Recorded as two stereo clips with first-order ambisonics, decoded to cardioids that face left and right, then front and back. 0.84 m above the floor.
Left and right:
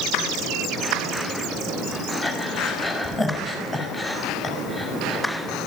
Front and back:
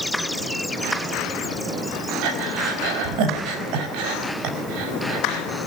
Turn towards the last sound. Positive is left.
turn(degrees=170)